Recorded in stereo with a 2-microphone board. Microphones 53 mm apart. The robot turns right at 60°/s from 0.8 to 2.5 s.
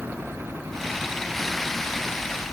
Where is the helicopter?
50° right (ahead or behind); by 2.5 s 70° left (ahead or behind).